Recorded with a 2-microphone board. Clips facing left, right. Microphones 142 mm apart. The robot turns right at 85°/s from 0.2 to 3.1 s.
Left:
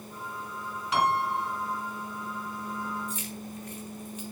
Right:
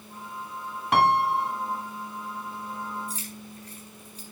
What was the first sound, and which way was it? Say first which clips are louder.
A piano: right 5 dB; 120° right.